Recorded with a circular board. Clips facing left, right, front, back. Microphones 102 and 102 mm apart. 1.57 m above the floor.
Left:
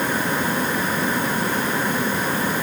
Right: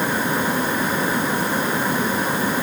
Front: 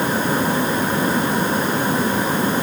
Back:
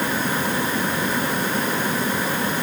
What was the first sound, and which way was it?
Only background noise.